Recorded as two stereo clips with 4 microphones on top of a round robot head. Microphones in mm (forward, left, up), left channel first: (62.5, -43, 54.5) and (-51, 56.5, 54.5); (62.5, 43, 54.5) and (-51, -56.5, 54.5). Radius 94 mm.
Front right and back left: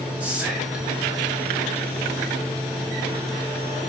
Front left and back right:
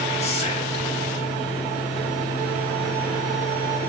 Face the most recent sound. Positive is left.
turn(degrees=60)